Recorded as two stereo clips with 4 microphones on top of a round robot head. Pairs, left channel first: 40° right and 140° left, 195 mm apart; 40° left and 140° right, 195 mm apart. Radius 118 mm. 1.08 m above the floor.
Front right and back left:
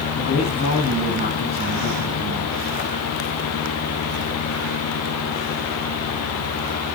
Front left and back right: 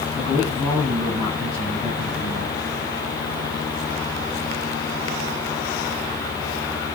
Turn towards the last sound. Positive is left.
turn(degrees=-35)